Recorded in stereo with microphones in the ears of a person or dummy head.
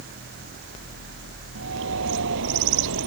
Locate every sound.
1.6 s a bird: 70° right (ahead or behind)